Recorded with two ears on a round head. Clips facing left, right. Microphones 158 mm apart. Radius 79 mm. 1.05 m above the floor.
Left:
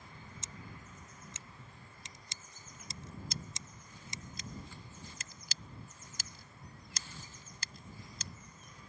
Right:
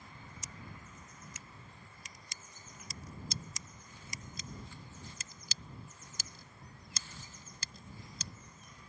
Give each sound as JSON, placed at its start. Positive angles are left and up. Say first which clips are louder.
{"t": 0.4, "sound": "scissors", "louder": "right 1 dB", "side_deg": 25}
{"t": 3.3, "sound": "scissors", "louder": "even", "side_deg": -85}